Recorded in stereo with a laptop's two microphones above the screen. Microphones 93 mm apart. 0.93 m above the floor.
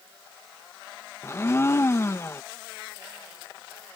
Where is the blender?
25° left (ahead or behind).